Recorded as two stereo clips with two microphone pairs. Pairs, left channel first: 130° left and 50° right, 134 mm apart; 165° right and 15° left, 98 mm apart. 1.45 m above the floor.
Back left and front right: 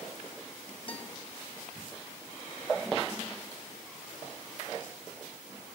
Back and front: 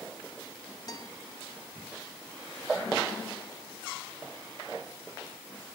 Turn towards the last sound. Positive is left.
turn(degrees=165)